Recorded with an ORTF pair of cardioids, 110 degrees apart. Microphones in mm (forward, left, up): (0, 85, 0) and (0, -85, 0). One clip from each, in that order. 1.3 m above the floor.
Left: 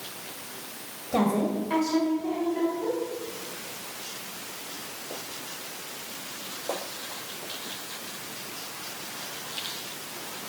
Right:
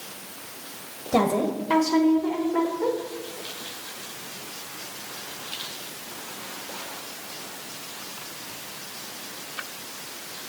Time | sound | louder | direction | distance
1.1 | a woman speaking | right 3 dB | 25° right | 1.0 m